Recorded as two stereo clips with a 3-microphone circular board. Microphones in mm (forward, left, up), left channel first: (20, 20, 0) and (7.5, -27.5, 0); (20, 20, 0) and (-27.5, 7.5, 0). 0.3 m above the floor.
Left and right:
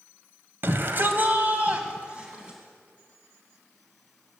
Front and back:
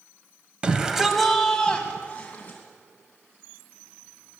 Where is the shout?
105° right, 1.5 m; by 2.6 s 40° right, 2.5 m.